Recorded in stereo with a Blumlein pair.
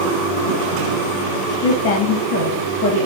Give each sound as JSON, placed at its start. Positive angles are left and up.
{"t": 1.6, "sound": "a woman speaking", "azimuth_deg": 50, "distance_m": 0.6}